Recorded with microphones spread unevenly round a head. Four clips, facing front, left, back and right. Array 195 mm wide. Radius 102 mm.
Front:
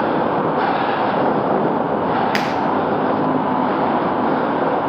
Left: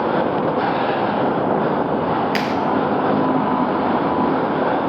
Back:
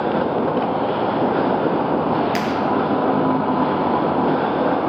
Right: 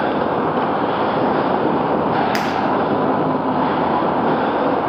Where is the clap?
35° right, 5.5 m.